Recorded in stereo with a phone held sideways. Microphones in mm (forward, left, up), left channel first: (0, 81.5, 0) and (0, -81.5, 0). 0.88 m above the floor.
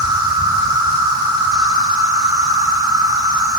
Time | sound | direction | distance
0.0 | an insect | 25° right (ahead or behind) | 2.5 m